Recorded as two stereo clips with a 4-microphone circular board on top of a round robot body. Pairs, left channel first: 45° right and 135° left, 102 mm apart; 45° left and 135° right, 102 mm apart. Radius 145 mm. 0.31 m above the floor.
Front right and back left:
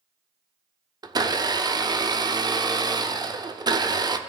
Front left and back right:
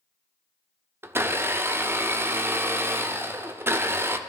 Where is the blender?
165° left, 1.0 m.